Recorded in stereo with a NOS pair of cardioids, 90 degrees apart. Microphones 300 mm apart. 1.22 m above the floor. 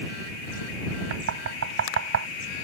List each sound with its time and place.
1.1 s knocking: 50° right